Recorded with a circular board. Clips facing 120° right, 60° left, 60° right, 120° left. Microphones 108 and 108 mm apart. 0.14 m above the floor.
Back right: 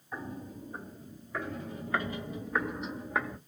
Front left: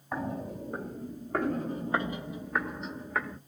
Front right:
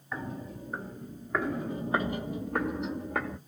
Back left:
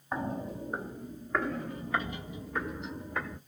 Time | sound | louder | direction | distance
0.1 | footsteps | front left 6 dB, back left 4 dB | 65° left | 1.1 m